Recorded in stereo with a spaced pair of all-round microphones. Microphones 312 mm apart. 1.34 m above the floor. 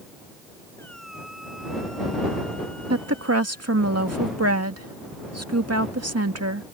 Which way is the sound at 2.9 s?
50° right (ahead or behind).